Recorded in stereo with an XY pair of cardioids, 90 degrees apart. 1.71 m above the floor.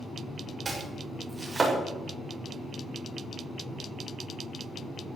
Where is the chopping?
30° right, 7 m.